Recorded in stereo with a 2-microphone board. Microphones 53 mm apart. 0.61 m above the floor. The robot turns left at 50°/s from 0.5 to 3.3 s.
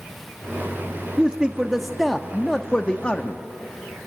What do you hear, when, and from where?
1.2 s a man speaking: 20° right (ahead or behind), 0.6 m; by 3.4 s 25° left (ahead or behind), 0.6 m